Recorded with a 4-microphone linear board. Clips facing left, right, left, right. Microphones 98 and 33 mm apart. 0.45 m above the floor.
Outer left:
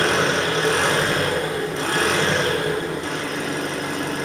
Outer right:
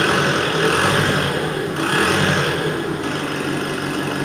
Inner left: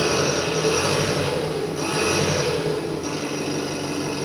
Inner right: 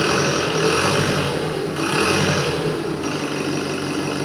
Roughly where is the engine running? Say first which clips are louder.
Outer right 2 dB, inner right 2 dB; right.